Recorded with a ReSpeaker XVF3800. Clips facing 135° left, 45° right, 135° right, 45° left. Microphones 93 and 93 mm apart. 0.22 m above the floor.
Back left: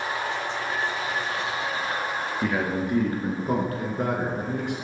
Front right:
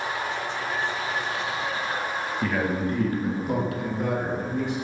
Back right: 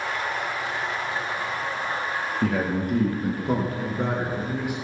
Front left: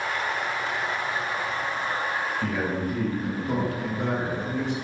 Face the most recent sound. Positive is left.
turn(degrees=140)